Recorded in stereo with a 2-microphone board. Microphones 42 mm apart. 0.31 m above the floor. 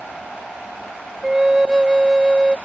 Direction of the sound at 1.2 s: 15° right (ahead or behind).